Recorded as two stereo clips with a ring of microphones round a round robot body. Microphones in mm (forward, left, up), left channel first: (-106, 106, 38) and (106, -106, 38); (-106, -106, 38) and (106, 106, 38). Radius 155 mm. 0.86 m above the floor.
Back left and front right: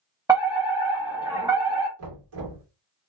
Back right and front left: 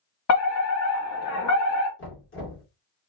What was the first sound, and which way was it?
A fire alarm, 120° right.